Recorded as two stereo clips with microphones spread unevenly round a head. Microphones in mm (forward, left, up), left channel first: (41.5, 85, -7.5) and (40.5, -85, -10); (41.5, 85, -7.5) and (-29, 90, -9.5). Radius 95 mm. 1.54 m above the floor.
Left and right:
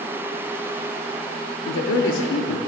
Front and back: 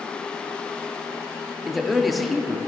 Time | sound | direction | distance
1.6 | a man speaking | 85° left | 1.1 m